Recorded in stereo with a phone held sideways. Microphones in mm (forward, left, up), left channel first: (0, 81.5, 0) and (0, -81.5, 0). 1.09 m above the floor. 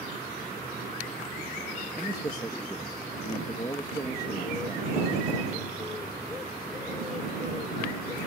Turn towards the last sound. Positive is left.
turn(degrees=25)  # may be behind; listen again after turning